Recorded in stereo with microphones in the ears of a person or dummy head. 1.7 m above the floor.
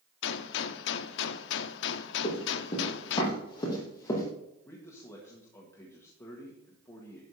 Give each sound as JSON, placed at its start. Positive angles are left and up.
{"t": 0.2, "sound": "a gunshot", "side_deg": 70, "distance_m": 0.7}
{"t": 2.2, "sound": "running footsteps", "side_deg": 35, "distance_m": 5.0}
{"t": 4.7, "sound": "a man speaking", "side_deg": 15, "distance_m": 1.8}